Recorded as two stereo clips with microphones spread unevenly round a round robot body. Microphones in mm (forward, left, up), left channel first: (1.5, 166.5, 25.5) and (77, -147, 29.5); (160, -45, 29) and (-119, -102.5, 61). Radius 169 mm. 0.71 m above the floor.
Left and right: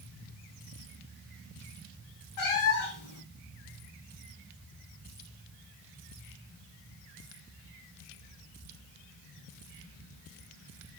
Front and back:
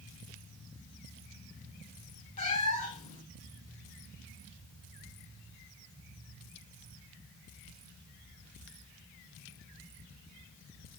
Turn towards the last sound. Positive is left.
turn(degrees=80)